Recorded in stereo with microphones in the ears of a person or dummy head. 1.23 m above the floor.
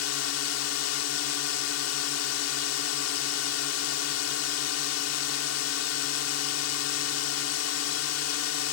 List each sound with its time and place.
0.0 s a drone: 70° left (ahead or behind)